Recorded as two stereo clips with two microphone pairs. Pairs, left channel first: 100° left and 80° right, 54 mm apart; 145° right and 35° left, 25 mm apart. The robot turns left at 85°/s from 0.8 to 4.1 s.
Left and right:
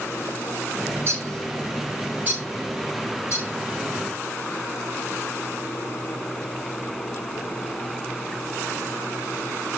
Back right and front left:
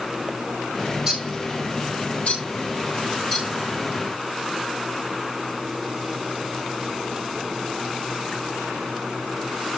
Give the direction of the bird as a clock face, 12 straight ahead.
1 o'clock.